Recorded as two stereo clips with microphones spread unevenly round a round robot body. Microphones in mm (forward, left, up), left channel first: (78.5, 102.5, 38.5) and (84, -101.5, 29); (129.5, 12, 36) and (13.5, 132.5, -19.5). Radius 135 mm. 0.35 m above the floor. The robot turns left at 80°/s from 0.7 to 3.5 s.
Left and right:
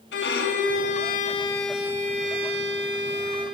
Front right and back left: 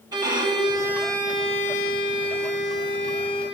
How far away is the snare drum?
I don't hear a snare drum.